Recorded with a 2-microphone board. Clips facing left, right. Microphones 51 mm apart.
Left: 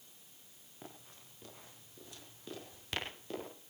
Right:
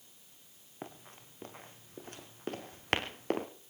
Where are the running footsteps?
40° right (ahead or behind), 5 m; by 3.5 s 60° right (ahead or behind), 4 m.